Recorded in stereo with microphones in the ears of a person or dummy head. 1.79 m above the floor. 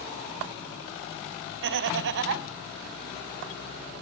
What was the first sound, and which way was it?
Laughter, 60° right (ahead or behind).